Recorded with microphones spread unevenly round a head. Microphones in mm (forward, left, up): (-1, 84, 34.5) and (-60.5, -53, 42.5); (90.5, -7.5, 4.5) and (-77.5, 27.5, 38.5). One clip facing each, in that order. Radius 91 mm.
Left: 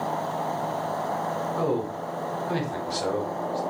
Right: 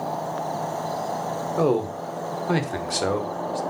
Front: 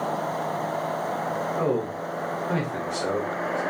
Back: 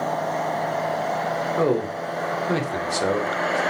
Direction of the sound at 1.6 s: 150° right.